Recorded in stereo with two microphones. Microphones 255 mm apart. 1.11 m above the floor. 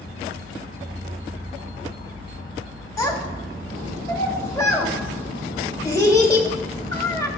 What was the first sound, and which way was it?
A child speaking, 15° left (ahead or behind).